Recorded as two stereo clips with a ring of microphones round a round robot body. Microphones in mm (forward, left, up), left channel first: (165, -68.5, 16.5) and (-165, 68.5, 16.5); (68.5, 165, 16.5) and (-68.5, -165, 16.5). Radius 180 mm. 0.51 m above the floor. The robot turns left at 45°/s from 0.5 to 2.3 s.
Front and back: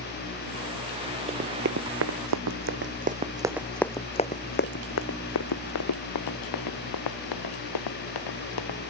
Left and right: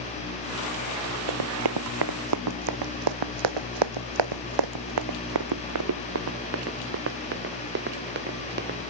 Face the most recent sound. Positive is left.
turn(degrees=-50)